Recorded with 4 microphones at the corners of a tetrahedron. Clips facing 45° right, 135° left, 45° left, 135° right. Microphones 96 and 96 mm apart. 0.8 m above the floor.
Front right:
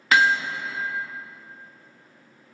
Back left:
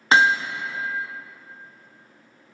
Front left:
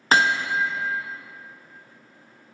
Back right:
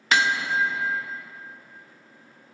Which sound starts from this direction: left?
Hammering, at 0.1 s.